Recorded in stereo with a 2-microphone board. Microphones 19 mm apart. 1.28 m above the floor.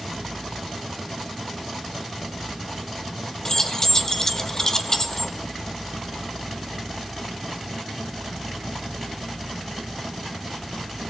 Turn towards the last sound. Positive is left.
turn(degrees=30)  # may be behind; listen again after turning